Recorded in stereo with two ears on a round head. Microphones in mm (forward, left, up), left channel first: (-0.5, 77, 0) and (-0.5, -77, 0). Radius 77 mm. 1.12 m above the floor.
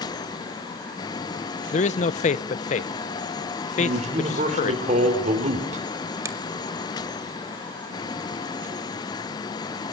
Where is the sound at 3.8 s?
45° right (ahead or behind), 4 m.